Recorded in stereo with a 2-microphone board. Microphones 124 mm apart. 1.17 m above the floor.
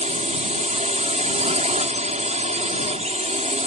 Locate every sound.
0.0 s a drone: 75° right (ahead or behind)